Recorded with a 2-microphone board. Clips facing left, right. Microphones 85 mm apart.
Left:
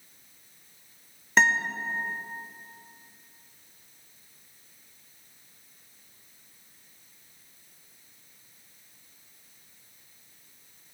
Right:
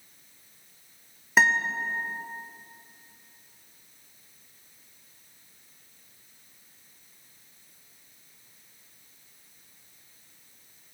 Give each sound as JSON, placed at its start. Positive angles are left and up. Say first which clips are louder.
{"t": 1.4, "sound": "a guitar", "louder": "right 1 dB", "side_deg": -5, "distance_m": 1.4}